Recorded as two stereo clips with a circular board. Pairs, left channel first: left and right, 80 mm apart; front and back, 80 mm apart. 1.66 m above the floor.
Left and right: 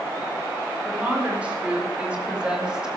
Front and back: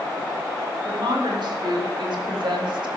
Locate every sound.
0.8 s a woman speaking: 165° right, 5 m; by 3.0 s 170° right, 2.5 m